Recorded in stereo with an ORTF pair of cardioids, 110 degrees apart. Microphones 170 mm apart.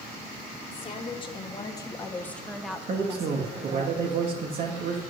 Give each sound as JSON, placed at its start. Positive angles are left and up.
{"t": 0.7, "sound": "a woman speaking", "azimuth_deg": 35, "distance_m": 1.9}
{"t": 2.9, "sound": "a man speaking", "azimuth_deg": -55, "distance_m": 1.7}